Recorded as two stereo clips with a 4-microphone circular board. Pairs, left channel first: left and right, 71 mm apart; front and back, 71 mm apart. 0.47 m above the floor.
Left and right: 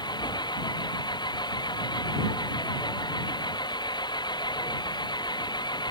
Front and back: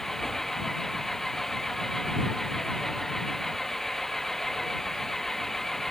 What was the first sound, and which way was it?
An engine running, 85° left.